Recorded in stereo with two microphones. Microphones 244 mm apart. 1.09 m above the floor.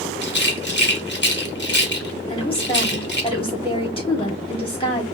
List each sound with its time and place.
0.2 s a rattle: 50° left (ahead or behind), 1.2 m
2.3 s a woman speaking: 20° left (ahead or behind), 3 m